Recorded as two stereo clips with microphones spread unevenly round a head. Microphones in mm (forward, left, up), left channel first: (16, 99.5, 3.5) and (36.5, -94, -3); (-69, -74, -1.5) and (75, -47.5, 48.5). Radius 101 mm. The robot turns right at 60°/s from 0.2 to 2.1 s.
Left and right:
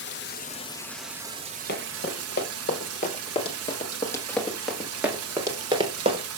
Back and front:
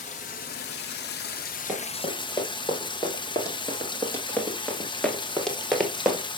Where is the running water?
135° left, 0.9 m; by 6.4 s 110° right, 0.9 m.